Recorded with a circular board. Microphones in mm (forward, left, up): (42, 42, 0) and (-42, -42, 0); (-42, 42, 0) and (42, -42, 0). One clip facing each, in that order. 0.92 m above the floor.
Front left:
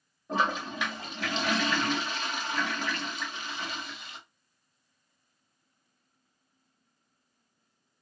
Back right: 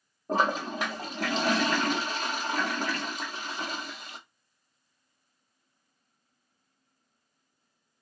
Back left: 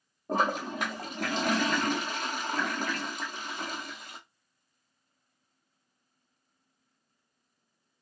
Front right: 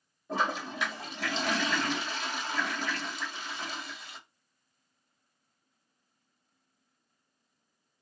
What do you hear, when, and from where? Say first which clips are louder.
0.3 s a toilet flushing: back right 2 dB, back left 3 dB; 175° left, 0.7 m